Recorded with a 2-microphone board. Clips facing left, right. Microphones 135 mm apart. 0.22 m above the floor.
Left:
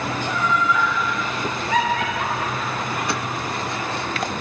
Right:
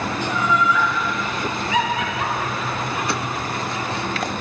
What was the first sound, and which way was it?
Laughter, 50° left (ahead or behind).